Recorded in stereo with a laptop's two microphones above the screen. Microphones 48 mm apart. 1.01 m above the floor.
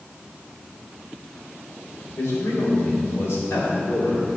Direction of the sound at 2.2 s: 75° left (ahead or behind).